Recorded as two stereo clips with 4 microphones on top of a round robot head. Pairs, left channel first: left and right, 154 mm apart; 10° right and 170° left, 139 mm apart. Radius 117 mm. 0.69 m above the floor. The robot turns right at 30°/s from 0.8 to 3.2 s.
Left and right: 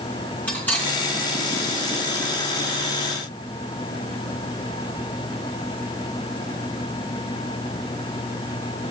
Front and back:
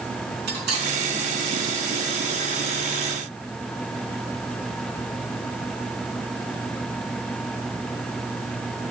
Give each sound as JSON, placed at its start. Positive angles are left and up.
{"t": 0.5, "sound": "cutlery clinking", "azimuth_deg": 170, "distance_m": 5.0}